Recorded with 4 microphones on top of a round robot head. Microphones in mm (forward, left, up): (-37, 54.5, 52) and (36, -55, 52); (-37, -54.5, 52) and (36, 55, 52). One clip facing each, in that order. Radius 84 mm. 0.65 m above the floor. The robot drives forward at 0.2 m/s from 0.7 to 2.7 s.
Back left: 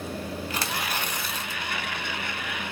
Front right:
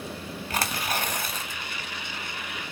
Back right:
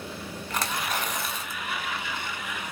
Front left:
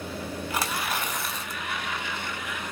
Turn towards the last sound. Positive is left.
turn(degrees=-60)